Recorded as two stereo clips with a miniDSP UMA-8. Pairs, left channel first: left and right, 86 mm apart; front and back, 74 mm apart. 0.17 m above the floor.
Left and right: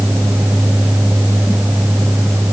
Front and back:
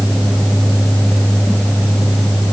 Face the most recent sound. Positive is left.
No sound to turn to.